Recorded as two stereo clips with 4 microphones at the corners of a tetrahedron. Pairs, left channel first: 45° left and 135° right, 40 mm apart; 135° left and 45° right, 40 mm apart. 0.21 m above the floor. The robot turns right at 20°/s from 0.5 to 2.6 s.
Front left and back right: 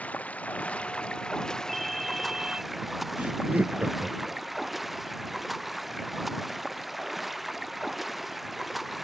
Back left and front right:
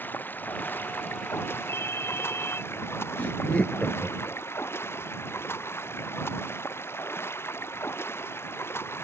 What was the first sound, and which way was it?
Running water, 95° left.